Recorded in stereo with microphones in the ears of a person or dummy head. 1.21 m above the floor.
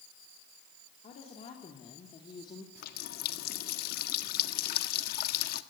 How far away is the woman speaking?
About 3.5 m.